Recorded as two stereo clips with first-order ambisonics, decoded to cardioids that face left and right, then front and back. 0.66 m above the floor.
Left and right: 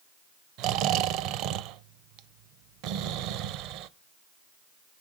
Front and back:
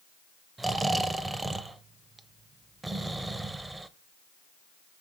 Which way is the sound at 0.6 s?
100° right.